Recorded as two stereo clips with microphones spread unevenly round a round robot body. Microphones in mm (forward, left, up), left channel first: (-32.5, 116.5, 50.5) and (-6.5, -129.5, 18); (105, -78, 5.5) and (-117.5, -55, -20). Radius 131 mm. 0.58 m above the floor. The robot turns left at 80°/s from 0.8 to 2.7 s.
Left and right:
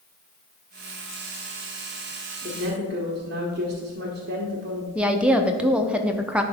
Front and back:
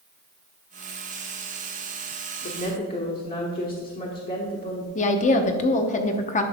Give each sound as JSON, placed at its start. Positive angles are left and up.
{"t": 2.4, "sound": "a woman speaking", "azimuth_deg": -30, "distance_m": 1.3}
{"t": 5.0, "sound": "a woman speaking", "azimuth_deg": -20, "distance_m": 0.7}